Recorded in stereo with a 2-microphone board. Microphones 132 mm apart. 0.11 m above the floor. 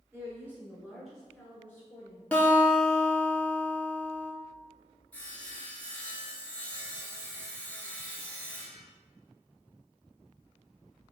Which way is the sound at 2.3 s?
10° left (ahead or behind).